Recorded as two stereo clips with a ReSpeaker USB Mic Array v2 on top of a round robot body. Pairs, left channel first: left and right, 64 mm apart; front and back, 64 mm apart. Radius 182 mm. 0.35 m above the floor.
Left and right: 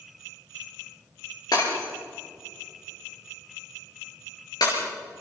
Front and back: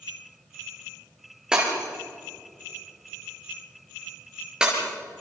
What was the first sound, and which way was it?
Breaking glass, 105° left.